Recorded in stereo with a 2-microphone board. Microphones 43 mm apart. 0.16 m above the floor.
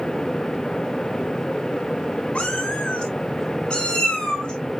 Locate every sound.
2.4 s a cat meowing: 30° left (ahead or behind), 1.5 m; by 4.8 s 20° left (ahead or behind), 3 m